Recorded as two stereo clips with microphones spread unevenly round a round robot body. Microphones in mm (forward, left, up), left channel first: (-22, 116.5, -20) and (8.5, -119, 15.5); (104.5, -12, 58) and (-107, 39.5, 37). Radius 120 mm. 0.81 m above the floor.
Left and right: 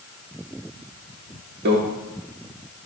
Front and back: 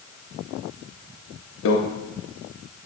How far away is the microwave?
About 0.7 m.